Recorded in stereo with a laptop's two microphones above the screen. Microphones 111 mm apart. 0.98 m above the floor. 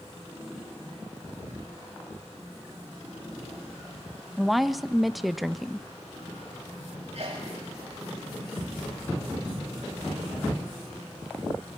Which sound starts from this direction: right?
A sneeze, at 7.1 s.